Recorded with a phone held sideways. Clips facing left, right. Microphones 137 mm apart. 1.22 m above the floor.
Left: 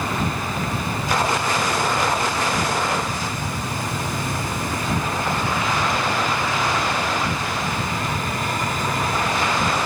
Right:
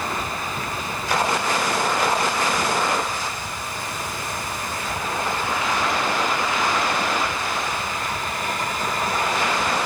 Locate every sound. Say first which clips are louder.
0.0 s an insect: left 3 dB; 75° left (ahead or behind)